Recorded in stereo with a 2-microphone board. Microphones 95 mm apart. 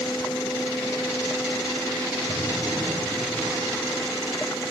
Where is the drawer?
35° right (ahead or behind), 2.5 m.